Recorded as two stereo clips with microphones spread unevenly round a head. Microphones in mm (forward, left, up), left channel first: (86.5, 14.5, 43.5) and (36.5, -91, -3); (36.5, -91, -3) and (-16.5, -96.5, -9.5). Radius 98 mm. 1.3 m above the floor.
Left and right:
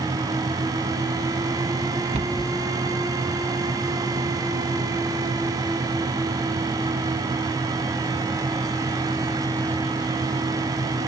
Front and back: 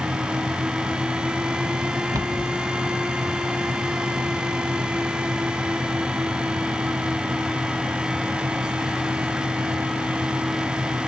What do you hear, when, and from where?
2.1 s a cupboard door: 165° right, 1.0 m